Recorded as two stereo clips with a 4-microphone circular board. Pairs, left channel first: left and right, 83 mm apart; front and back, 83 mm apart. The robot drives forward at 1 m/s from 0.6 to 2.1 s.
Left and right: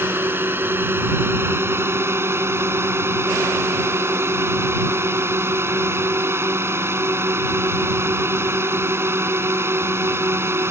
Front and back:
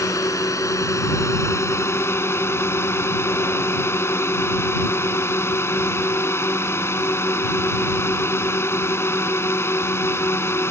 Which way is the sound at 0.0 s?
35° right.